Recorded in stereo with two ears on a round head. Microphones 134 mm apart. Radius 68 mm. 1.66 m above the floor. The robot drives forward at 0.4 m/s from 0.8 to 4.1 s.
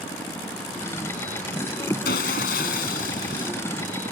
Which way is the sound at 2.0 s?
75° left (ahead or behind).